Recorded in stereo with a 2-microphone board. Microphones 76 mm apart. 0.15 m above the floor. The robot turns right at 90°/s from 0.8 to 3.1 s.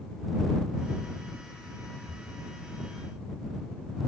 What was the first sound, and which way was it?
Breathing, 80° right.